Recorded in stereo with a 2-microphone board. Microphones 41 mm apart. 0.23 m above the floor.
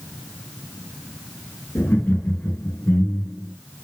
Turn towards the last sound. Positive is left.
turn(degrees=45)  # may be behind; listen again after turning